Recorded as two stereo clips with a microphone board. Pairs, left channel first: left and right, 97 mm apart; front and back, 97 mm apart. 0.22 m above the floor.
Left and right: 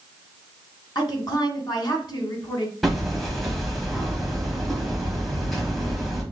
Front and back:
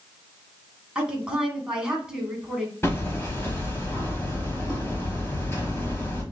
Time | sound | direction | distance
0.9 | a woman speaking | 105° left | 1.6 m
2.8 | hammering | straight ahead | 1.2 m